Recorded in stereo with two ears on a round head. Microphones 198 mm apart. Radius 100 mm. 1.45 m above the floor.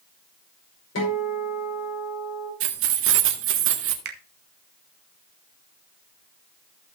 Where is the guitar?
70° left (ahead or behind), 5 m.